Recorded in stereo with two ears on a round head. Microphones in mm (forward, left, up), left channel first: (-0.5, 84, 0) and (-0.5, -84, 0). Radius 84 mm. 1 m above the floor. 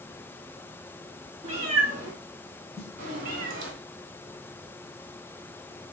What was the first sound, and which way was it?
A cat meowing, 35° right (ahead or behind).